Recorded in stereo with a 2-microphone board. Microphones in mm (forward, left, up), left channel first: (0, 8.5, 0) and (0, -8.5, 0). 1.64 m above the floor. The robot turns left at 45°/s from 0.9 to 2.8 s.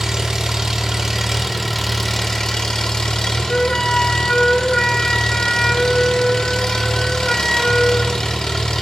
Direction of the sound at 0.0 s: 140° right.